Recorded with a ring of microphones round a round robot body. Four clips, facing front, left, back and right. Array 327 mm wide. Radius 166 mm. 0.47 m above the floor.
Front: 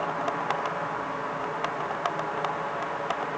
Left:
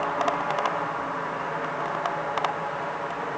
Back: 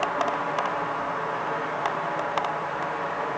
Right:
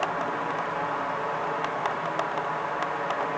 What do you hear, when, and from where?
Only background noise.